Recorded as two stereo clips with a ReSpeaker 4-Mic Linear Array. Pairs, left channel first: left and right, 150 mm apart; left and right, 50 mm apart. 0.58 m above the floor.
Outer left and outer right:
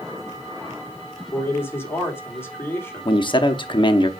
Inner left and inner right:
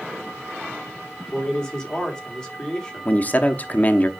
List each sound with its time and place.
1.3 s a man speaking: 15° left (ahead or behind), 1.9 m
3.0 s a man speaking: 35° left (ahead or behind), 0.7 m